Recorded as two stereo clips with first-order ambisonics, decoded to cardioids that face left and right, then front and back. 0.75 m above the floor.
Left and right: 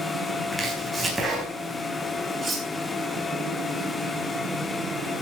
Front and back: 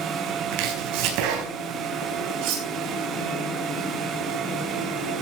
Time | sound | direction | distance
0.5 | chopping | 170° right | 4 m
2.4 | cutlery clinking | 165° right | 4.5 m